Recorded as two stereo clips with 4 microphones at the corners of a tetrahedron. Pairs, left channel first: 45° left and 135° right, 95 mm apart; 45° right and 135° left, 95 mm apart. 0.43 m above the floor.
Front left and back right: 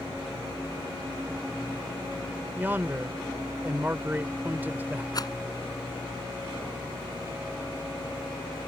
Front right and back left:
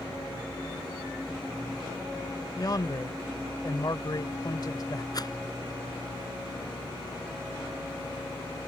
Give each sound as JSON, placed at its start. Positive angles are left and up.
{"t": 2.6, "sound": "a man speaking", "azimuth_deg": -70}
{"t": 5.1, "sound": "a rattle", "azimuth_deg": 0}